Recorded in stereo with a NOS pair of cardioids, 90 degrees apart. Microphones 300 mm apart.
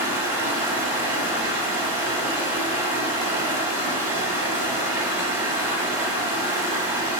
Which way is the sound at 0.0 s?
5° right.